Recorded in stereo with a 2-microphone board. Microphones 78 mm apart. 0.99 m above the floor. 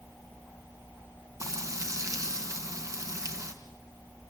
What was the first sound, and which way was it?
Frying, 40° right (ahead or behind).